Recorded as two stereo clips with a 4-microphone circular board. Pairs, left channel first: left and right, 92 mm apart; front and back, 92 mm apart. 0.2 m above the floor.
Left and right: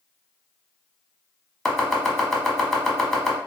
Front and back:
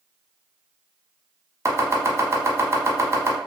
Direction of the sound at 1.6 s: 170° left.